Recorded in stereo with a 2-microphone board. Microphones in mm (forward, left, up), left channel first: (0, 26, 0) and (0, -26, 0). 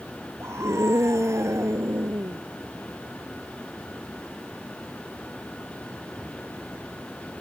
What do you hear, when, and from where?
0.4 s a scream: 65° right (ahead or behind)